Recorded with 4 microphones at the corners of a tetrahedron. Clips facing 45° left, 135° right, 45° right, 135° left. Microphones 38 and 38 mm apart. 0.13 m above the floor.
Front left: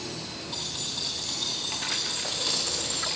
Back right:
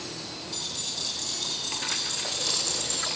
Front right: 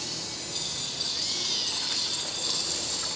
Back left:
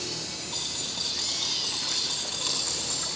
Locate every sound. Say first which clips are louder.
0.5 s keys jangling: front left 1 dB, back left 1 dB; 100° left, 9.5 m